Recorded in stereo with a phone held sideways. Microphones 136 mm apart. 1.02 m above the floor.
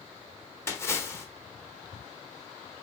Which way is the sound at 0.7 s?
20° left (ahead or behind).